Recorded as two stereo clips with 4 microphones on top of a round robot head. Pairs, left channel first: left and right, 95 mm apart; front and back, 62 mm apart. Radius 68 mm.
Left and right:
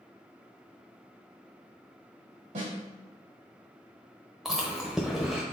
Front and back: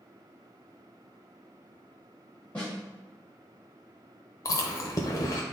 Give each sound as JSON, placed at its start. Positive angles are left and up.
{"t": 2.5, "sound": "a snare drum", "azimuth_deg": -80, "distance_m": 2.0}
{"t": 4.5, "sound": "chewing", "azimuth_deg": 0, "distance_m": 0.7}